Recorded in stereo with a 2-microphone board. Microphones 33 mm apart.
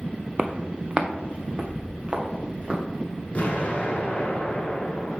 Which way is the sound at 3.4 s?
40° left (ahead or behind).